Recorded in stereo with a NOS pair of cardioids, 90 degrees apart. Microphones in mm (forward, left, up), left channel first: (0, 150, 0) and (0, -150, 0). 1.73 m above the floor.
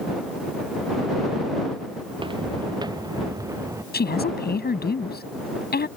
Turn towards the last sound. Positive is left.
turn(degrees=30)